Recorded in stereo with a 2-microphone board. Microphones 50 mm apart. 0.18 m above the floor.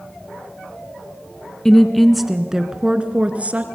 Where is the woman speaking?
10° left (ahead or behind), 1.6 m; by 3.6 s 30° right (ahead or behind), 2.0 m.